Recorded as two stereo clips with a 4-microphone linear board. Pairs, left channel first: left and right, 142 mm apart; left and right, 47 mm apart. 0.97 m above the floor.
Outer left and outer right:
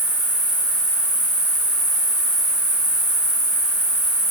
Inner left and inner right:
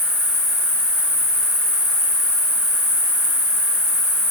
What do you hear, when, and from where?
0.0 s an insect: 65° right (ahead or behind), 0.9 m